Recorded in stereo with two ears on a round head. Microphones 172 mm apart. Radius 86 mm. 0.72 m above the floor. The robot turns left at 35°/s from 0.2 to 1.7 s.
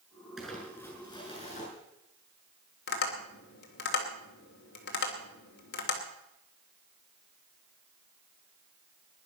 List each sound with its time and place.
0.4 s crumpling: 175° right, 7.5 m; by 1.7 s 140° left, 7.5 m
2.9 s tapping: 60° left (ahead or behind), 2.5 m